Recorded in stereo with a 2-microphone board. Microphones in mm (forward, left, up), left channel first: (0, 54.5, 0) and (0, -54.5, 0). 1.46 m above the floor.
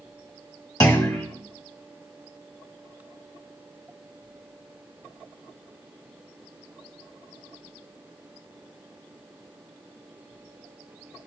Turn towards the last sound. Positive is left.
turn(degrees=35)  # may be behind; listen again after turning